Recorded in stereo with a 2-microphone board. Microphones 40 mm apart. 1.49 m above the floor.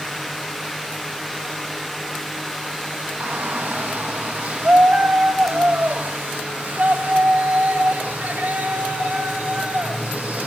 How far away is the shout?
About 1.7 m.